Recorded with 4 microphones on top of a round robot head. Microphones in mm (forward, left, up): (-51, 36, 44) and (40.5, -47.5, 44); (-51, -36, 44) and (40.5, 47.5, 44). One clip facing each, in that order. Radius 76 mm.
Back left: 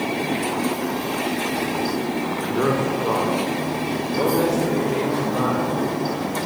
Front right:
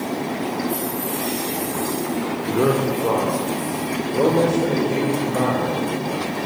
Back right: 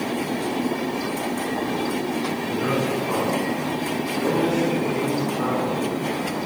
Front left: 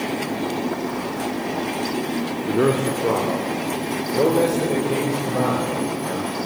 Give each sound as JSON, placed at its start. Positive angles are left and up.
{"t": 2.5, "sound": "a man speaking", "azimuth_deg": 35, "distance_m": 3.0}